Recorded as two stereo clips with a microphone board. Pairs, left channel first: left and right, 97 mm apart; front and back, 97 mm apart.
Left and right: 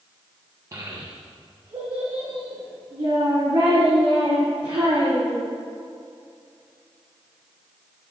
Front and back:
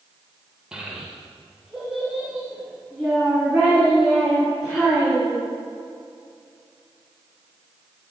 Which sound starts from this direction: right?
A child speaking, at 0.7 s.